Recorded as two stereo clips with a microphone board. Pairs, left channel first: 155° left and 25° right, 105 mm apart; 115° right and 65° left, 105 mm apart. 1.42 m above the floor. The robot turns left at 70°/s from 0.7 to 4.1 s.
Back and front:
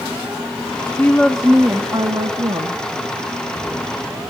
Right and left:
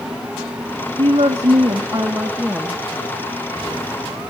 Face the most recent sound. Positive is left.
turn(degrees=-125)